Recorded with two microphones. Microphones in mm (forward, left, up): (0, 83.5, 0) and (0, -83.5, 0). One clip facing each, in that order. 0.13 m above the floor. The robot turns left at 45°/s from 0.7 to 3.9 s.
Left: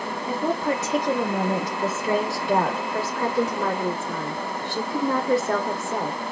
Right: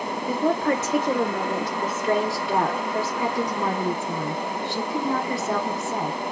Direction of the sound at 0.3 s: 20° left (ahead or behind).